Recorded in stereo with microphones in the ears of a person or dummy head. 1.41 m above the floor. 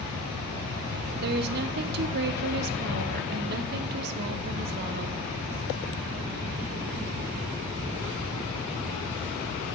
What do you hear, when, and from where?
1.2 s a woman speaking: 55° right (ahead or behind), 0.6 m